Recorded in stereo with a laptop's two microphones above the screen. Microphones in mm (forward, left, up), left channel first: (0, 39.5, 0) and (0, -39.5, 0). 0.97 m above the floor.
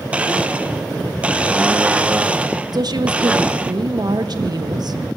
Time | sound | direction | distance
0.1 | a blender | 15° right (ahead or behind) | 0.7 m
2.7 | a woman speaking | 60° right (ahead or behind) | 1.3 m